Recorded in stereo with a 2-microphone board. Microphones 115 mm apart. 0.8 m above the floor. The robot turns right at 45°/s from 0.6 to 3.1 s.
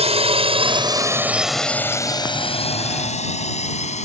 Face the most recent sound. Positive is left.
turn(degrees=80)